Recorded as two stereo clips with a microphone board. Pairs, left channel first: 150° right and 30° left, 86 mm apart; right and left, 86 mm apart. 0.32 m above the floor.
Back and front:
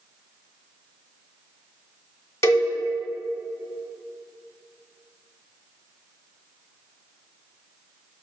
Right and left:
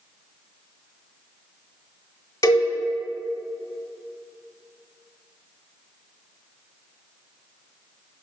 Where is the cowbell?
110° right, 1.0 m.